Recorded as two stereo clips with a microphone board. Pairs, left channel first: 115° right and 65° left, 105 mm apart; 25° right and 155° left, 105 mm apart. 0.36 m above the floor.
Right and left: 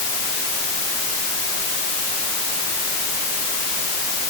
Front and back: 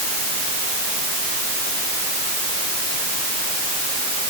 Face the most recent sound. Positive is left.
No sound to turn to.